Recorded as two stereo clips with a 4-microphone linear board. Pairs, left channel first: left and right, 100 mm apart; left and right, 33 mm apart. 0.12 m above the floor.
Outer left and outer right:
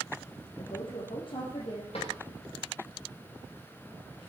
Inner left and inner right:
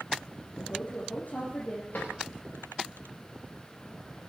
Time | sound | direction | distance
0.6 | a woman speaking | 60° left (ahead or behind) | 4 m
1.9 | a drawer | 75° left (ahead or behind) | 8 m